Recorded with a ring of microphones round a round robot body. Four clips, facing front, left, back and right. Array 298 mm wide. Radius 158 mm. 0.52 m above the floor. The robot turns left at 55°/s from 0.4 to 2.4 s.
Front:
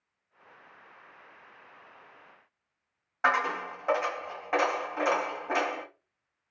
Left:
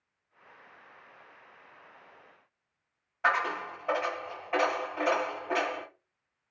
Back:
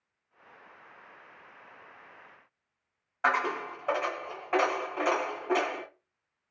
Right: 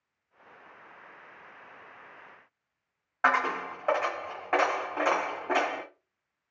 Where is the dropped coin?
75° right, 1.5 m.